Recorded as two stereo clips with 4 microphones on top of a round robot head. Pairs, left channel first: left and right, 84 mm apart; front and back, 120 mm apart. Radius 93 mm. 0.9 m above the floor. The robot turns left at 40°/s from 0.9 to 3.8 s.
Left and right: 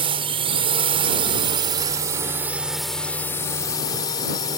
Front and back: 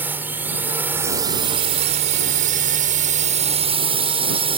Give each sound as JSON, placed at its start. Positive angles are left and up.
{"t": 0.0, "sound": "a drone", "azimuth_deg": -105}